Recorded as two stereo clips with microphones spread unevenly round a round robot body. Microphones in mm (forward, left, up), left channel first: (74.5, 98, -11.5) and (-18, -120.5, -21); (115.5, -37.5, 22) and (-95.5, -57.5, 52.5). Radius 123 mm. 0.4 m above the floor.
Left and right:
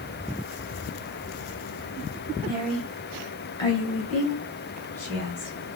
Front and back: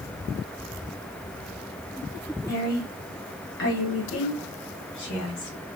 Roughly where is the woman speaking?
Ahead right.